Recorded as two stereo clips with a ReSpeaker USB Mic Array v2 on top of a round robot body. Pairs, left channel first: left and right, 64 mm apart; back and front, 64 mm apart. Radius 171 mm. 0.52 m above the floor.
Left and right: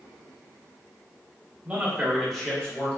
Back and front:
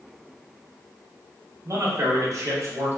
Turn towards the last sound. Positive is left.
turn(degrees=30)